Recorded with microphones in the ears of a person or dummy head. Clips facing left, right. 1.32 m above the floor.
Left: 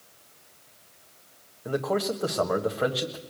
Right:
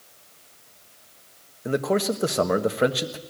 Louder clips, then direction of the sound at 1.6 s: Right 4 dB; 30° right (ahead or behind).